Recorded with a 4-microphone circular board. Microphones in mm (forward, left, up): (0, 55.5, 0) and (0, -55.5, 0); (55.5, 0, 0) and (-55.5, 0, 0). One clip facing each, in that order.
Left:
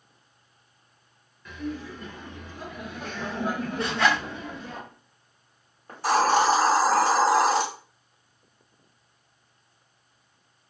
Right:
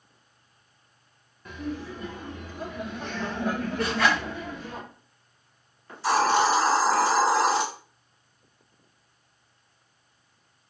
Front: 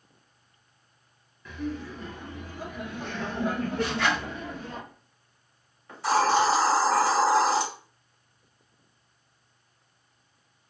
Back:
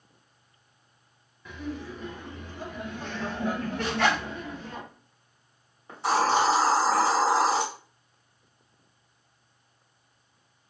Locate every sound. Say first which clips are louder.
1.4 s laughter: even, front 2 dB; 115° right, 1.2 m; by 4.8 s 40° left, 1.7 m
3.8 s a zipper: even, back 2 dB; 150° left, 2 m
5.9 s a hiss: left 1 dB, front 1 dB; 120° left, 2 m